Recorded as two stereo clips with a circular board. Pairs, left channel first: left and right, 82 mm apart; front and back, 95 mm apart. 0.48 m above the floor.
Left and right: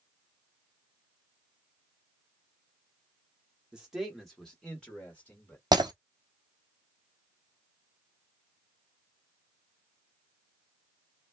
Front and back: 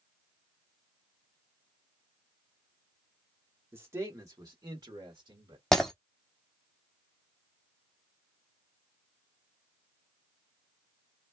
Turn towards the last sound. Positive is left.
turn(degrees=-85)